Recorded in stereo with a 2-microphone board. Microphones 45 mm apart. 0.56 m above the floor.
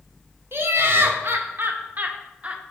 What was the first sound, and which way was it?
Laughter, 65° right (ahead or behind).